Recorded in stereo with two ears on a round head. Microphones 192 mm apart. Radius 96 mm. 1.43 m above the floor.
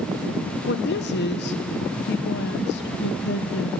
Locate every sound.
0.7 s a woman speaking: 55° left (ahead or behind), 1.2 m